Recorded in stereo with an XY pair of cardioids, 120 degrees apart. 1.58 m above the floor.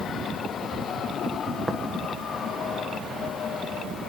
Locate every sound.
1.7 s tapping: 10° right, 1.2 m